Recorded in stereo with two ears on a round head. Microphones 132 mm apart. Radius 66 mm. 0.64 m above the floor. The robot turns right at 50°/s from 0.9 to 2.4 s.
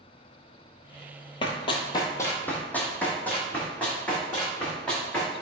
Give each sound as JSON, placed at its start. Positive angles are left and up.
{"t": 1.4, "sound": "running footsteps", "side_deg": 35, "distance_m": 0.7}